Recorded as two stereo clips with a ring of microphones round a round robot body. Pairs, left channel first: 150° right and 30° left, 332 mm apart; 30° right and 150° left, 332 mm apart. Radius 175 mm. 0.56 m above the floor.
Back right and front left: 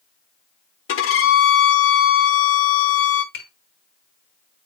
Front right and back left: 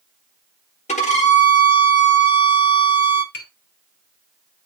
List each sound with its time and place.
0.9 s a violin: 100° right, 1.3 m
3.3 s tapping: 90° right, 2.5 m